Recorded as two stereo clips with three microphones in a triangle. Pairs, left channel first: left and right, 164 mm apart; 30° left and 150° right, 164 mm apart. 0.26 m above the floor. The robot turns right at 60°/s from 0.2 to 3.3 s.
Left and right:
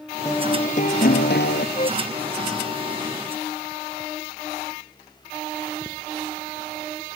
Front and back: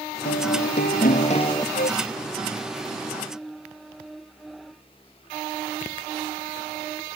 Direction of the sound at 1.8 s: 45° left.